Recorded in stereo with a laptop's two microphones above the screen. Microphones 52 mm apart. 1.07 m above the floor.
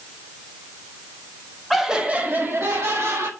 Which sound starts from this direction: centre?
Laughter, at 1.7 s.